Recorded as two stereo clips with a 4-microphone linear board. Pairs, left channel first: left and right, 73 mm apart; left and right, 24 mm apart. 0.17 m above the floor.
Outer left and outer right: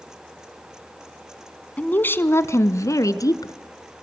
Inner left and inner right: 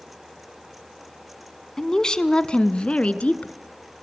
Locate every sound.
1.8 s a woman speaking: 20° left (ahead or behind), 1.2 m; by 3.5 s 60° left (ahead or behind), 2 m